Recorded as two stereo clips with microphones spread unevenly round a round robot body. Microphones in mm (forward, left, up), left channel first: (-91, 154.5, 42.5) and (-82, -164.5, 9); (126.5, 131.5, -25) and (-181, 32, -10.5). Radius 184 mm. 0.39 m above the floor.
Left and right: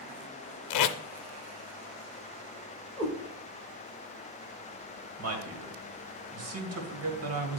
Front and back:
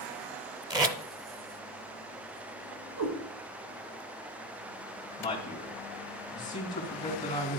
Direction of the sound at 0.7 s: 120° left.